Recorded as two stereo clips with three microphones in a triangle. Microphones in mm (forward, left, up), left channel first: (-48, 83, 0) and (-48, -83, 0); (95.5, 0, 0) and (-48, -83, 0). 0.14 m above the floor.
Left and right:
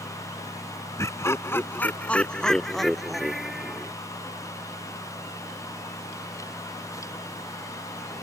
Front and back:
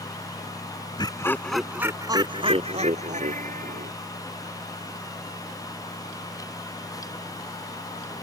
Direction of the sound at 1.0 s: 40° left.